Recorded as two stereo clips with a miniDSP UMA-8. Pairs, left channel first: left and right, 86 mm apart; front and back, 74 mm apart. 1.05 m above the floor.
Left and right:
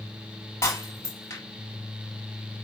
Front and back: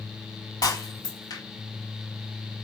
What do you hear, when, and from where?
0.6 s breaking glass: 35° left, 4 m